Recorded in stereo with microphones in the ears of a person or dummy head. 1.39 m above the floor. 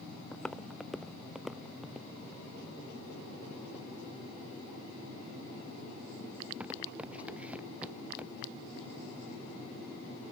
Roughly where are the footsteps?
Centre.